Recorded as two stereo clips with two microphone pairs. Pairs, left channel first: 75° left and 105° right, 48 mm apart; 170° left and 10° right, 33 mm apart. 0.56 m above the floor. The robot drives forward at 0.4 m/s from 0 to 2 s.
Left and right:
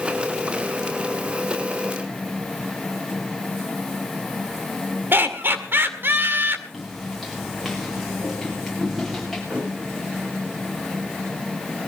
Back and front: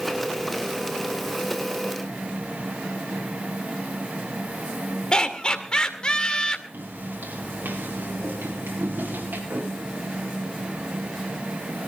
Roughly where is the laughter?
Behind right.